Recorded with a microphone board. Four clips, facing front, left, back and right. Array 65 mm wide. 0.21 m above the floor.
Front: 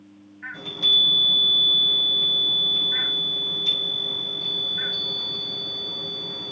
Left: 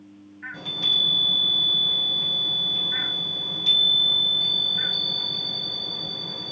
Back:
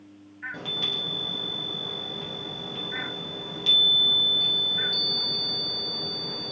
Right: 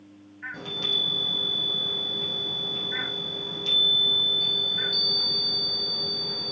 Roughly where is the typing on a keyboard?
I don't hear typing on a keyboard.